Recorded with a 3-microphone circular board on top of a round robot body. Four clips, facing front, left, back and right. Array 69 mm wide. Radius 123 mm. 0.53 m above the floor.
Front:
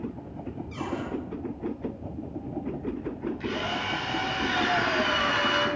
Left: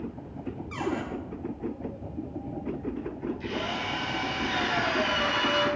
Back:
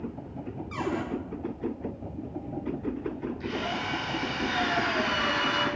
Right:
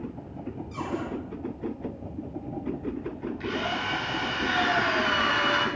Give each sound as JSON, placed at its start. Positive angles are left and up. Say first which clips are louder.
{"t": 0.7, "sound": "a cupboard door", "louder": "left 2 dB, back 3 dB", "azimuth_deg": 135, "distance_m": 6.0}
{"t": 3.4, "sound": "a drill", "louder": "right 6 dB, front 1 dB", "azimuth_deg": -70, "distance_m": 6.0}